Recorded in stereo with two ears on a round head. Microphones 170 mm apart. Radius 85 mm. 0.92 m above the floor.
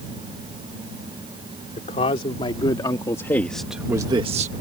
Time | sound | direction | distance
1.8 | a man speaking | 35° left (ahead or behind) | ?